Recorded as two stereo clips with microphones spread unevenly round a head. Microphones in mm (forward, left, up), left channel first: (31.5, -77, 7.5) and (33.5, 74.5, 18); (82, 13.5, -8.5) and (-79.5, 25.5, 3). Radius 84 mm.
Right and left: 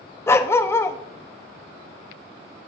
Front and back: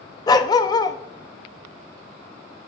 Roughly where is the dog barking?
Ahead right.